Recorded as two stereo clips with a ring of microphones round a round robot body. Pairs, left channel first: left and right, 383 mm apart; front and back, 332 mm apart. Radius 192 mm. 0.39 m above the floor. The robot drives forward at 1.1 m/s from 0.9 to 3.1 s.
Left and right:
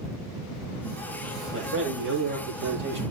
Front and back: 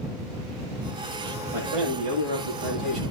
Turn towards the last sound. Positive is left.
turn(degrees=-155)